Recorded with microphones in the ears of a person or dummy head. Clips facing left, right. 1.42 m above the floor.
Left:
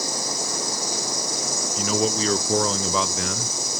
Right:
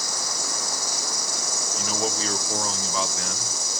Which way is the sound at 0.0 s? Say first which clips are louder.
Left 5 dB; 15° left (ahead or behind).